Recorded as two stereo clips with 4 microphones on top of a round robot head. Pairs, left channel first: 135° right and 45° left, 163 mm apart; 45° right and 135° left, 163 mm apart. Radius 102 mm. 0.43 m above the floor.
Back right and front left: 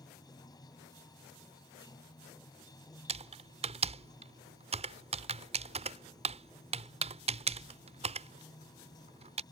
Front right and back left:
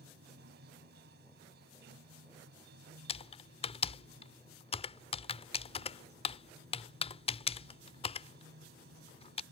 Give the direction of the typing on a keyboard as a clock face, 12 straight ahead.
12 o'clock.